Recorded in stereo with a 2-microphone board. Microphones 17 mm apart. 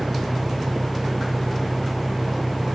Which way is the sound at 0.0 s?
70° left (ahead or behind).